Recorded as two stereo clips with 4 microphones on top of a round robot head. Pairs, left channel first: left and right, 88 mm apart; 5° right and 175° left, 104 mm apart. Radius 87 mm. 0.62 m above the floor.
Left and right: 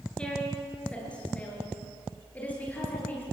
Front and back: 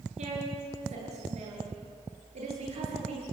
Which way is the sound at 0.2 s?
170° left.